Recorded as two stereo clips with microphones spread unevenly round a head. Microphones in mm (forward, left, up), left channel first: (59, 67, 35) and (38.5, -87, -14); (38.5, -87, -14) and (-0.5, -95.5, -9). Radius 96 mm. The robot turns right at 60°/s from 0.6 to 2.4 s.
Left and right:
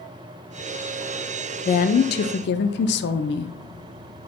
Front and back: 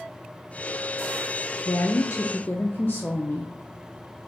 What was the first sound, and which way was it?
A woman speaking, 40° left.